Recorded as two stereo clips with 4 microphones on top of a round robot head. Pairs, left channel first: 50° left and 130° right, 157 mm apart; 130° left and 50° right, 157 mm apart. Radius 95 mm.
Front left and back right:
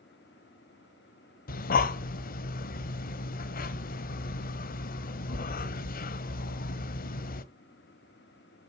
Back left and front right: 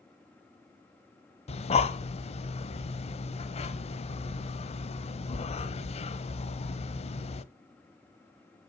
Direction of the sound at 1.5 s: 80° left.